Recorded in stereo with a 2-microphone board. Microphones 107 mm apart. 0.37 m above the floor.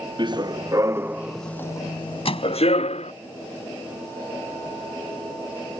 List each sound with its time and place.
0.2 s running footsteps: 45° right (ahead or behind); by 3.1 s 80° left
2.2 s a microwave: 65° left (ahead or behind)